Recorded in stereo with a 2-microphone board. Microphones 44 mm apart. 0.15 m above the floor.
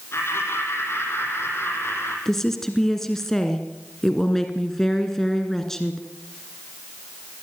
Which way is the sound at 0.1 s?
70° left (ahead or behind).